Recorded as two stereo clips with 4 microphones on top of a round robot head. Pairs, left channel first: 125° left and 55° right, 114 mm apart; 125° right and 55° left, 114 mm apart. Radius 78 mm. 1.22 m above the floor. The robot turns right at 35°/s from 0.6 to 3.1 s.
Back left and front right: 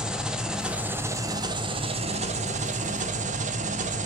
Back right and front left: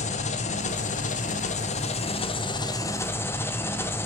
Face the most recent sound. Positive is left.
turn(degrees=-55)